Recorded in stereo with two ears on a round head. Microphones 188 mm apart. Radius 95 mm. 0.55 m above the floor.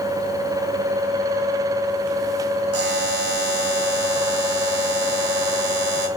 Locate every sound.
2.7 s a buzzer: 50° right (ahead or behind), 2.5 m